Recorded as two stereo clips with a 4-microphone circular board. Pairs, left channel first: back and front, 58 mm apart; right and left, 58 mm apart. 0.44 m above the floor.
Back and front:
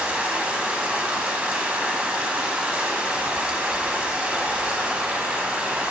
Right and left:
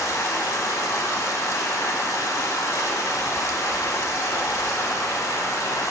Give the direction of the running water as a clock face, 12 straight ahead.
2 o'clock.